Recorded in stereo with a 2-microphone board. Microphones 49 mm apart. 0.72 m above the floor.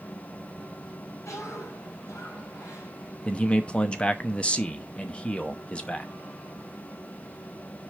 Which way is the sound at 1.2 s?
80° left.